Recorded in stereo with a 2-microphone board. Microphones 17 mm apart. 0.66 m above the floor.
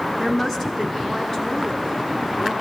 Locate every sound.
0.2 s a woman speaking: 30° left (ahead or behind), 5.5 m; by 2.5 s 40° left (ahead or behind), 6.5 m